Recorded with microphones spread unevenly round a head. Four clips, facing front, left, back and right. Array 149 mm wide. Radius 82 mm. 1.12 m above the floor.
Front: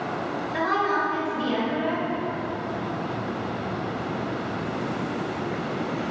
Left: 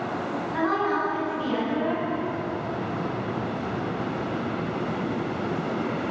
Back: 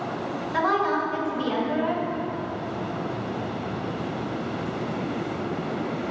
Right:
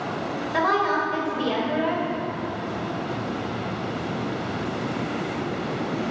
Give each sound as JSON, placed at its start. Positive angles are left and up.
{"t": 0.5, "sound": "a woman speaking", "azimuth_deg": -115, "distance_m": 5.5}